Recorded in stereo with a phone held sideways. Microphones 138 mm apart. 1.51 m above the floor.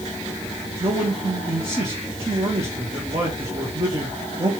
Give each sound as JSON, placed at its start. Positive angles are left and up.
{"t": 0.8, "sound": "a man speaking", "side_deg": -40, "distance_m": 2.0}